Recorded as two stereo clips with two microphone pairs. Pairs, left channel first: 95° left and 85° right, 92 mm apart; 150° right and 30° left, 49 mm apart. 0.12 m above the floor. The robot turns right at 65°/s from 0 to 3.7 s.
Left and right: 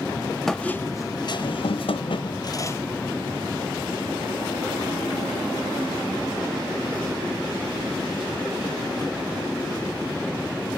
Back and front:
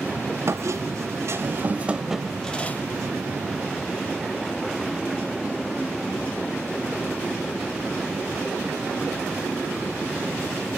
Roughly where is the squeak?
Ahead.